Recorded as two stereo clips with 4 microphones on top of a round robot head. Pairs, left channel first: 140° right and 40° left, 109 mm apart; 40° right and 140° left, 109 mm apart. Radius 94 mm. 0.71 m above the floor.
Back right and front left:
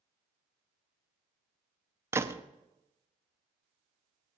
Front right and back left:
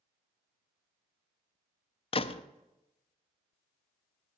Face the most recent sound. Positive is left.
turn(degrees=-25)